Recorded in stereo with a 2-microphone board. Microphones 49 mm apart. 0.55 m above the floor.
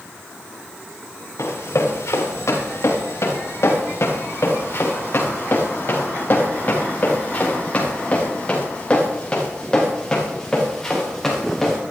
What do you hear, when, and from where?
1.4 s running footsteps: 70° left (ahead or behind), 5 m; by 11.8 s 5° left (ahead or behind), 6 m